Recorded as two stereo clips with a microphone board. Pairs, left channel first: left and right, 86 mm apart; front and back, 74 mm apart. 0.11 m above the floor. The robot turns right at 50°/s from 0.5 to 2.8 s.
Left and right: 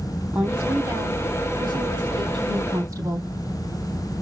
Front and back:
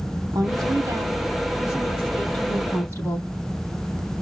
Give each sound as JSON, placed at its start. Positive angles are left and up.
{"t": 0.3, "sound": "a woman speaking", "azimuth_deg": -155, "distance_m": 3.5}